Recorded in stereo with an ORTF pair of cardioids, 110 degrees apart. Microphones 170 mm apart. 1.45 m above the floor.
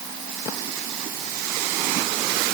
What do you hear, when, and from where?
Only background noise.